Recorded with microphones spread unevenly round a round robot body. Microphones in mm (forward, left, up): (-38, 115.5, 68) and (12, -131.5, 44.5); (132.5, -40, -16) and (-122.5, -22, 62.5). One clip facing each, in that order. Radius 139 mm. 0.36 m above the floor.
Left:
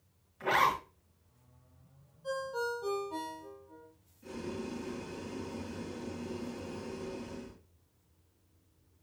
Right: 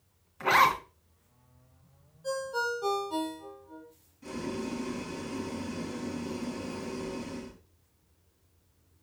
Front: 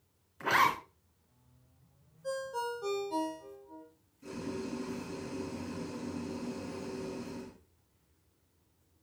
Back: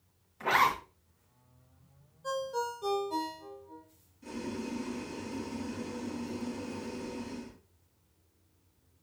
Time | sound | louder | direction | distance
0.4 | a zipper | right 3 dB, back 1 dB | 60° right | 3.5 m
2.2 | a ringtone | right 3 dB, back 2 dB | 100° right | 5.5 m
4.2 | boiling | right 4 dB, back 1 dB | 80° right | 4.5 m